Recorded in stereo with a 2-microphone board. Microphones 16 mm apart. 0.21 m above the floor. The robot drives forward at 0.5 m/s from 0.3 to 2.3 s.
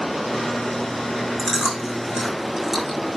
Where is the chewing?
15° right (ahead or behind), 8.5 m; by 3.0 s 20° right (ahead or behind), 8 m.